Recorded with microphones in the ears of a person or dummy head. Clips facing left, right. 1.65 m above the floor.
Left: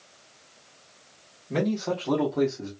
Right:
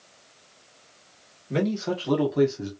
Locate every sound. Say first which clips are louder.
1.5 s a man speaking: right 1 dB; 10° right (ahead or behind), 1.5 m; by 2.7 s 25° right (ahead or behind), 0.9 m